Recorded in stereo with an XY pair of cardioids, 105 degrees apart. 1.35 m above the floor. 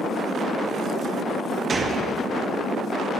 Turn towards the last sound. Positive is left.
turn(degrees=-40)